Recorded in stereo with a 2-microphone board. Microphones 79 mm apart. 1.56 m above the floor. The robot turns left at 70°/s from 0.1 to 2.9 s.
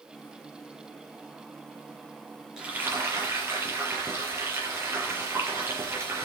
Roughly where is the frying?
Centre.